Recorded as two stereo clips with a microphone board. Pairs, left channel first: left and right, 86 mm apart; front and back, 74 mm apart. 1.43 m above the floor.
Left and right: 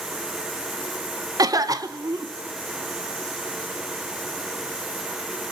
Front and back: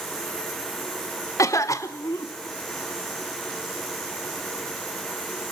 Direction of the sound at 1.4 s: 45° right.